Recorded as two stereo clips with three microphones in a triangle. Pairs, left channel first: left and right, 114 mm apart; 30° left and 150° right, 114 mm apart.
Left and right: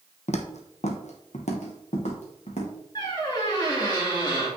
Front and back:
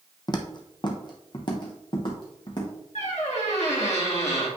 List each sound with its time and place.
0.3 s footsteps: 80° left, 0.8 m; by 2.7 s 75° left, 2.5 m
3.0 s a squeak: 40° left, 2.5 m